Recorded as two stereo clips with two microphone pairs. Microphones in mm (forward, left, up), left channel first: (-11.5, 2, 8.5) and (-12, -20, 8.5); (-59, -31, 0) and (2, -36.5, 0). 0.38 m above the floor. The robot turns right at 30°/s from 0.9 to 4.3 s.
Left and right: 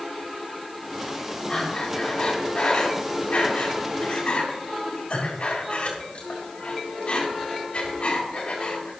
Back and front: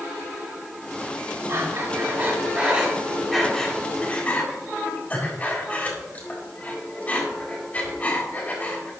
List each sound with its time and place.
1.5 s breathing: 30° left, 3.5 m; by 8.9 s 115° left, 3.5 m